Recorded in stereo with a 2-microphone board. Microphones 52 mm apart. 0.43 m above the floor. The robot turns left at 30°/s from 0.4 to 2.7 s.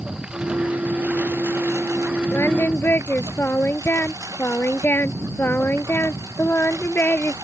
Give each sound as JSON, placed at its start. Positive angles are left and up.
{"t": 0.0, "sound": "a lawn mower", "azimuth_deg": -15}
{"t": 2.3, "sound": "singing", "side_deg": 55}